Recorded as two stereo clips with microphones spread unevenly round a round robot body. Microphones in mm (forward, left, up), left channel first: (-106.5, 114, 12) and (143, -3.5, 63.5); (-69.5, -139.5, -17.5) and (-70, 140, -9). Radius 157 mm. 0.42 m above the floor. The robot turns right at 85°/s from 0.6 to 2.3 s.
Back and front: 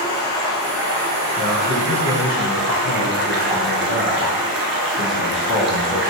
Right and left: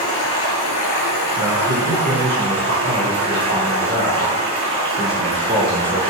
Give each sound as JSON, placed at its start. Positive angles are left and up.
{"t": 0.0, "sound": "running water", "azimuth_deg": -125, "distance_m": 1.1}
{"t": 1.4, "sound": "a man speaking", "azimuth_deg": 95, "distance_m": 1.9}